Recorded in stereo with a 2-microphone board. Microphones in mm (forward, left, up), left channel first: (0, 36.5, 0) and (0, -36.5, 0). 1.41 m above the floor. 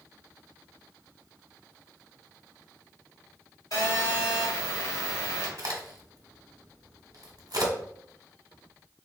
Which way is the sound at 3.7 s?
50° left (ahead or behind).